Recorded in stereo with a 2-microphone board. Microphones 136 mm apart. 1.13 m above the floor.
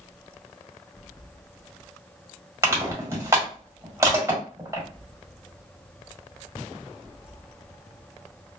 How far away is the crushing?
About 1.7 m.